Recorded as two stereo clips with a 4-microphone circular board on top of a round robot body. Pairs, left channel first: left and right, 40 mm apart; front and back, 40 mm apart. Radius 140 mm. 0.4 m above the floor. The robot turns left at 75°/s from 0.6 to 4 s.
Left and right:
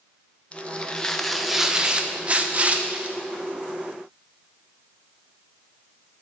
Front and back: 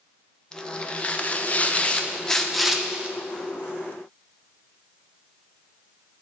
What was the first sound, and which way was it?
Tearing paper, 60° left.